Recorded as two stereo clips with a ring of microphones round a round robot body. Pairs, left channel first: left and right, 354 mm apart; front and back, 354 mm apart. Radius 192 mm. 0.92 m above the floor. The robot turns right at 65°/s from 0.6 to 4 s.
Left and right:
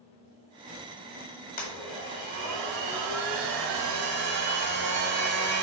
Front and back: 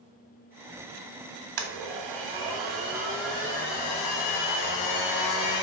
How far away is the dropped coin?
No dropped coin in this recording.